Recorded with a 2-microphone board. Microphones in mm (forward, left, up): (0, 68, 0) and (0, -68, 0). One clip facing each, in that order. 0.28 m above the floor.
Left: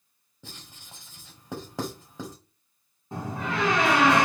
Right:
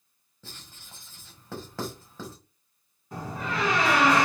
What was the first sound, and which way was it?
Writing, 20° left (ahead or behind).